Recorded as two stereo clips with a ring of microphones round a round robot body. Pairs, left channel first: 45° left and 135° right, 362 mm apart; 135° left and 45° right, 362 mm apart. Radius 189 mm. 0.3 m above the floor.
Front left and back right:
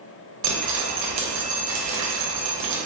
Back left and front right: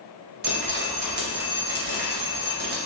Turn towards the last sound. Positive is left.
turn(degrees=-105)